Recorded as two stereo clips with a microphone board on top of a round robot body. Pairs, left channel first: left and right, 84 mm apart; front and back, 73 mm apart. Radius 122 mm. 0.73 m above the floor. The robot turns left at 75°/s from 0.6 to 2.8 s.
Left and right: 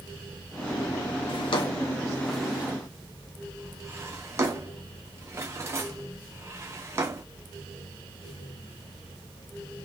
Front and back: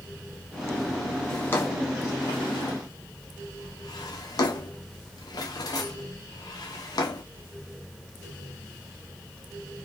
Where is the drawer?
85° left, 0.8 m; by 7.2 s 30° right, 0.8 m.